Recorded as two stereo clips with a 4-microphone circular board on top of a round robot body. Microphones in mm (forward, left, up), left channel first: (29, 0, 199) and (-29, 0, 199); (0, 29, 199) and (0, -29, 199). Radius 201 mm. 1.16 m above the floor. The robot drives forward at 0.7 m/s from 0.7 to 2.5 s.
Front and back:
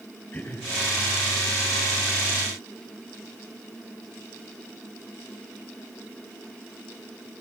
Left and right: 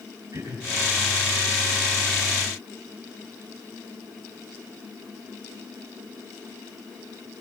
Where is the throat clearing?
55° right, 10 m.